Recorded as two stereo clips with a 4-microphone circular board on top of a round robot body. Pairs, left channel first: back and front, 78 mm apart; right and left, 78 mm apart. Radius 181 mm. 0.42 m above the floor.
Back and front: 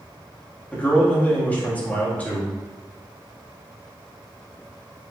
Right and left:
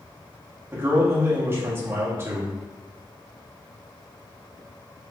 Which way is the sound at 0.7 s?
125° left.